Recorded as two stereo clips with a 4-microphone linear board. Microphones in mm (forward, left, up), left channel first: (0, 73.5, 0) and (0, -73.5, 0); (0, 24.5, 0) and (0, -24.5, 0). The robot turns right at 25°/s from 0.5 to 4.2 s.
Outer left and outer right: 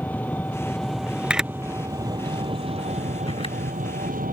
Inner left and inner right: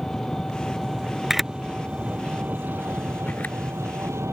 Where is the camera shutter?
5° right (ahead or behind); by 3.5 s 45° left (ahead or behind).